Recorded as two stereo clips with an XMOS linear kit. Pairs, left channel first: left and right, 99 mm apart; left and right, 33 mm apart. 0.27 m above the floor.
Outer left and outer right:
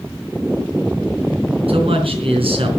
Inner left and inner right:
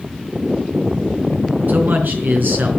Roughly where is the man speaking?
Right.